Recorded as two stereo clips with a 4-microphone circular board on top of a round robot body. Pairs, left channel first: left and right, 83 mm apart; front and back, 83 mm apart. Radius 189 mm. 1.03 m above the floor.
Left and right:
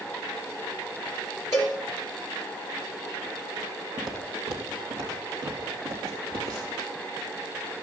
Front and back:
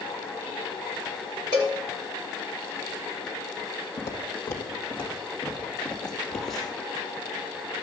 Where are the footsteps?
40° right, 2.5 m; by 6.8 s 90° right, 4.5 m.